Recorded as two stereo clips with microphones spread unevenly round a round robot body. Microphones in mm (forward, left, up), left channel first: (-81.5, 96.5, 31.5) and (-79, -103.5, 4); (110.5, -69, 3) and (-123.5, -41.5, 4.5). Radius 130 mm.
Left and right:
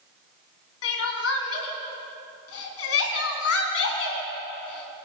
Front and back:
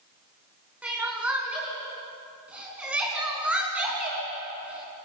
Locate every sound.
0.8 s crying: 90° left, 3 m